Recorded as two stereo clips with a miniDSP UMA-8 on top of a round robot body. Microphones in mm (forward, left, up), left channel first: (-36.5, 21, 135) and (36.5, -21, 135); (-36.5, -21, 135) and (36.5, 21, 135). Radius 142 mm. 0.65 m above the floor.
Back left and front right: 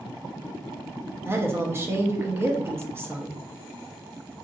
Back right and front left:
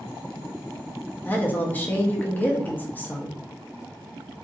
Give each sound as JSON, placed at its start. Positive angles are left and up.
{"t": 1.2, "sound": "a woman speaking", "azimuth_deg": -85, "distance_m": 0.7}